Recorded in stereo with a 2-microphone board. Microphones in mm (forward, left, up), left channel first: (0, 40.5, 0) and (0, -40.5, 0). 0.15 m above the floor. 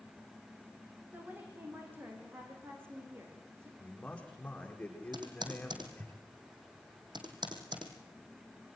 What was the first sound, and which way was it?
A woman speaking, 25° right (ahead or behind).